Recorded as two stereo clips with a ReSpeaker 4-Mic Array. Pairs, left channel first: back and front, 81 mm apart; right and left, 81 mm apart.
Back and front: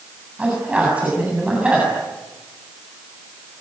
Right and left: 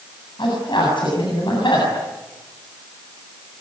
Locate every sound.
0.4 s a man speaking: 75° right, 8 m